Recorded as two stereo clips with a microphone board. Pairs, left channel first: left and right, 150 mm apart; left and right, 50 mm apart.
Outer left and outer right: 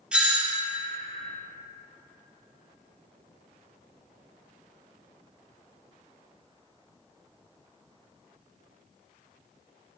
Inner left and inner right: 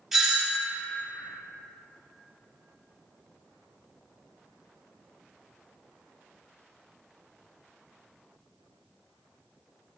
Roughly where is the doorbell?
Centre.